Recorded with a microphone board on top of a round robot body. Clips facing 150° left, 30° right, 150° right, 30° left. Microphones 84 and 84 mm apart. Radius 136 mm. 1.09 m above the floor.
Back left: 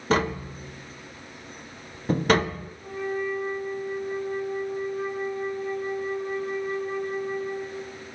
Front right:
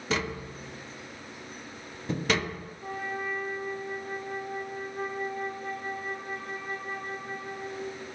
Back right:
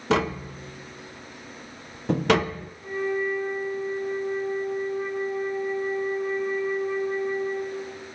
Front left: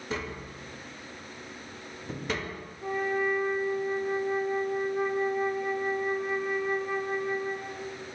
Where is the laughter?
I don't hear laughter.